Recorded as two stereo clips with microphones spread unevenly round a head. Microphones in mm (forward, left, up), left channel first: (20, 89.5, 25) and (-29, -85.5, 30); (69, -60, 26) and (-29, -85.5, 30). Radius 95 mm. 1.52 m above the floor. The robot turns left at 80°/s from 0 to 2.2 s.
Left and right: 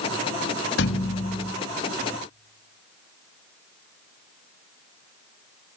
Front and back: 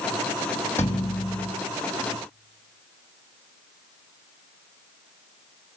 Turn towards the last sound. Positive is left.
turn(degrees=-20)